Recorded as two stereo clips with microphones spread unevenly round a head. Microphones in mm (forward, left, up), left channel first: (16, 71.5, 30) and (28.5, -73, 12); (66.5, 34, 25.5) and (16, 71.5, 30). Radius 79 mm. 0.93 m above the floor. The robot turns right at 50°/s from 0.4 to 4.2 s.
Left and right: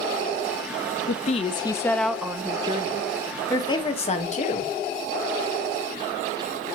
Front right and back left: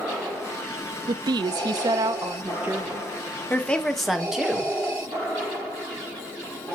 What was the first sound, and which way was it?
A woman speaking, 135° left.